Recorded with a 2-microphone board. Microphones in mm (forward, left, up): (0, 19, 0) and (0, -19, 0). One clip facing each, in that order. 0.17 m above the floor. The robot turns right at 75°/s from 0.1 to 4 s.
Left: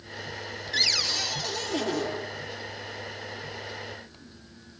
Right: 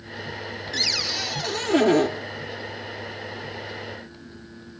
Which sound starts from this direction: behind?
A cupboard door, at 0.7 s.